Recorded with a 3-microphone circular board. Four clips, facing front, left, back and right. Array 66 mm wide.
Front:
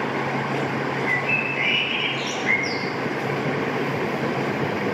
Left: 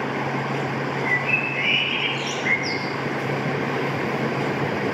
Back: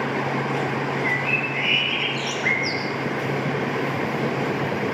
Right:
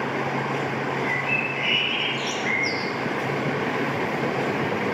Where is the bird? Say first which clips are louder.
Left 2 dB, even; 170° left, 7.5 m.